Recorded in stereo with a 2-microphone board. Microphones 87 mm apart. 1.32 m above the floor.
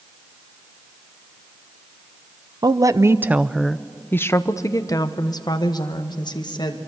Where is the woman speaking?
50° right (ahead or behind), 0.7 m; by 6.8 s 60° left (ahead or behind), 1.9 m.